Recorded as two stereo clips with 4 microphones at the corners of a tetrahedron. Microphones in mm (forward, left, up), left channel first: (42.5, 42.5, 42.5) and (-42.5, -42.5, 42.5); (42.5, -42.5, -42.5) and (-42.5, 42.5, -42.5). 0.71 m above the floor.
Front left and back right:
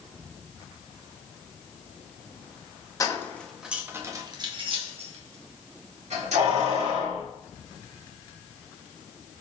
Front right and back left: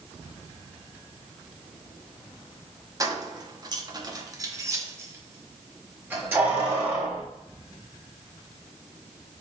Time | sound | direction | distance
3.0 | keys jangling | 95° left | 0.7 m